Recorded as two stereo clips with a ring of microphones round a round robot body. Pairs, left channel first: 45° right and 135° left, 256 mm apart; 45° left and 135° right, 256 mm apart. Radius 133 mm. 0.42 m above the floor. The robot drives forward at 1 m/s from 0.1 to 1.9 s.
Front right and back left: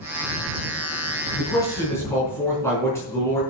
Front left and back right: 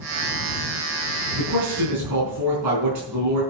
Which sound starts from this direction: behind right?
A man speaking, at 1.4 s.